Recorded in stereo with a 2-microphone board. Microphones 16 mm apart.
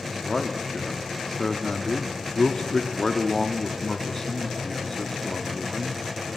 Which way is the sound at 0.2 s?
30° left (ahead or behind).